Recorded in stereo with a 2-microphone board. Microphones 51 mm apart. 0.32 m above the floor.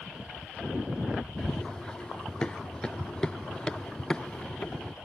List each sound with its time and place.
1.4 s running footsteps: 15° left (ahead or behind); by 5.0 s 20° left (ahead or behind)